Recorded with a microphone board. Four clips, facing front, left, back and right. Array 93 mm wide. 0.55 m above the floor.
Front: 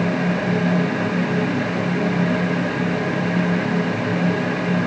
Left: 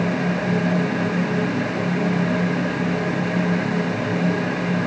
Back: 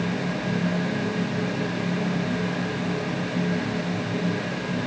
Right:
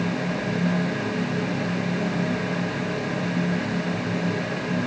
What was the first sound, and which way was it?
Only background noise.